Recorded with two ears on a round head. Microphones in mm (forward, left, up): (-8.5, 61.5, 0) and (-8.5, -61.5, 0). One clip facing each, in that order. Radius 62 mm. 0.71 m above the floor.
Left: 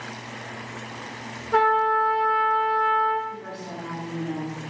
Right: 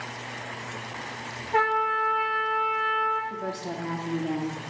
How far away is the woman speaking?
About 1.7 m.